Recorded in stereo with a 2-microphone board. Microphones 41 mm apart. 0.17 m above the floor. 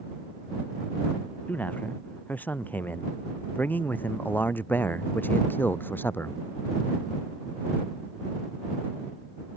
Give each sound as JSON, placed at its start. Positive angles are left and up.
{"t": 1.5, "sound": "a man speaking", "side_deg": 40}